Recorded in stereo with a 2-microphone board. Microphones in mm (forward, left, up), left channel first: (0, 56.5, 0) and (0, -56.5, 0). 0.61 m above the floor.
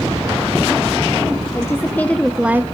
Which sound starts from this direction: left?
A woman speaking, at 1.5 s.